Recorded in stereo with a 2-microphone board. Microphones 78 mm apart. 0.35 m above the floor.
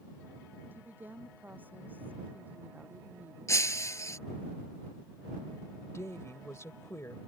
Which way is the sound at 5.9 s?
40° left (ahead or behind).